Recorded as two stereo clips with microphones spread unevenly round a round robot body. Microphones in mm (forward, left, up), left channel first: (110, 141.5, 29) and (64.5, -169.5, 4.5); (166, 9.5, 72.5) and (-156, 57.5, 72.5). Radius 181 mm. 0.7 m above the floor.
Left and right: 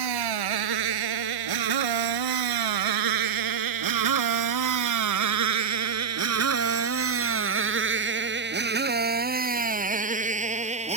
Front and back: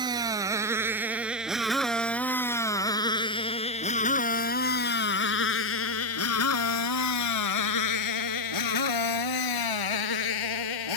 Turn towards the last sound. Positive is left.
turn(degrees=-30)